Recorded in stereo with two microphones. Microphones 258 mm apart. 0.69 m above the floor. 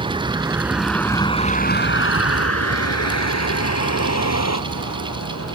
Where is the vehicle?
20° right (ahead or behind); by 5.5 s 75° left (ahead or behind).